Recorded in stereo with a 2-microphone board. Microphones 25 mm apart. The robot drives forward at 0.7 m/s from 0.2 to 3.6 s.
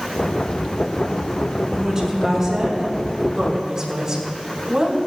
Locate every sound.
1.7 s a woman speaking: 20° right (ahead or behind), 5.5 m; by 5.0 s 25° right (ahead or behind), 4.5 m